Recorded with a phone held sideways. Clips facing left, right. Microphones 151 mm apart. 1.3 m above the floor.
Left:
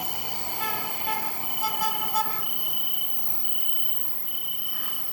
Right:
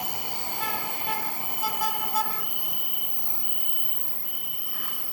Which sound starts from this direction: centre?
An insect, at 0.0 s.